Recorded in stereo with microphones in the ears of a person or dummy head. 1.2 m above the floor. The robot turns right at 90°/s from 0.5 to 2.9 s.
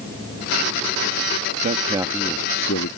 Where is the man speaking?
50° right; by 2.9 s 60° left.